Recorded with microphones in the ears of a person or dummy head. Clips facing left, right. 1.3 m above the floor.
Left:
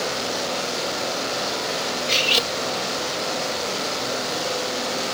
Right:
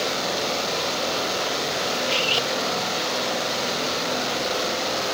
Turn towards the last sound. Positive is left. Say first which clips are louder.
# even
turn(degrees=25)  # may be behind; listen again after turning